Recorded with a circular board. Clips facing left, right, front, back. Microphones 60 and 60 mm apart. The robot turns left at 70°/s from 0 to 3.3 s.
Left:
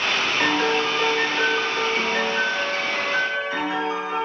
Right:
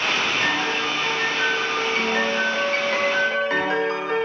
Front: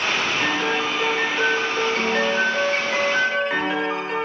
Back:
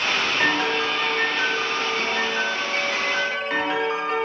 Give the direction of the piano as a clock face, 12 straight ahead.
8 o'clock.